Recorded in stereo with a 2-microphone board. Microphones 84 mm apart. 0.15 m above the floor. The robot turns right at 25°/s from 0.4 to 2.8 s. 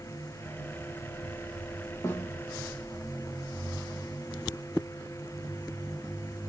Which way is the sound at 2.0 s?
35° left (ahead or behind).